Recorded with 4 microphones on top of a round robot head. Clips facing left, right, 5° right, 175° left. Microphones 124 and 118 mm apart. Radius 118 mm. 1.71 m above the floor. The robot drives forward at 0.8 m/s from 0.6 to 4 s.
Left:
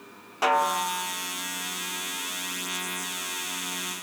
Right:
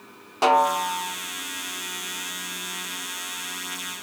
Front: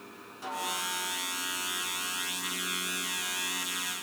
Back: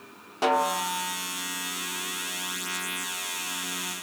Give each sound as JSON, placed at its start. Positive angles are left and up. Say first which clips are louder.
{"t": 0.4, "sound": "a snare drum", "louder": "right 5 dB, back 12 dB", "azimuth_deg": -155, "distance_m": 0.6}